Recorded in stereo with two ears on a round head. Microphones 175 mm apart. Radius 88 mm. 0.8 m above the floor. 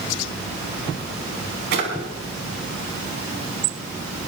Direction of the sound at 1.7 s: 60° right (ahead or behind).